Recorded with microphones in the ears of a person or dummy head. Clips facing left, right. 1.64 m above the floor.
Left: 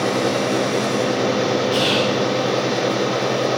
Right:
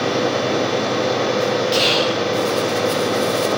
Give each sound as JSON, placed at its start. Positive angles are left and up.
{"t": 1.7, "sound": "whispering", "side_deg": -30, "distance_m": 2.5}